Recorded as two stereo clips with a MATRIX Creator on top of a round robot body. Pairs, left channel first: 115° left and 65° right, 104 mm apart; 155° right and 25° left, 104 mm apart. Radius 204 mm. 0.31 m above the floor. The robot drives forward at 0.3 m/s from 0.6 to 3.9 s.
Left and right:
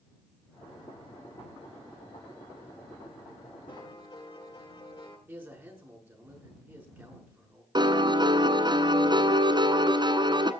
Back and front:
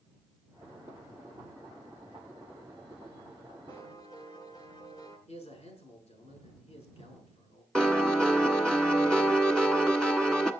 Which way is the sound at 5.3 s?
140° right.